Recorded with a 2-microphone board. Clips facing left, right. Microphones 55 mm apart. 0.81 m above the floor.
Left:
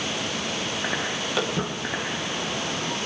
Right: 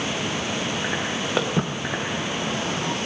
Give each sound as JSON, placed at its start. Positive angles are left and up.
{"t": 1.4, "sound": "footsteps", "side_deg": -25, "distance_m": 3.5}